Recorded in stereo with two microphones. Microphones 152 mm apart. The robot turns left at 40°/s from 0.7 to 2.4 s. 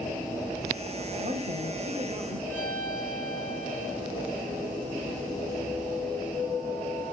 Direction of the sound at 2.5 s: 15° left (ahead or behind).